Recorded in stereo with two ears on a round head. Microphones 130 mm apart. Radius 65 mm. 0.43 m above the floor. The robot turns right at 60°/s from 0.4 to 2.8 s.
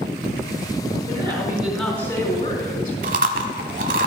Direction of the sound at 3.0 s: 60° right (ahead or behind).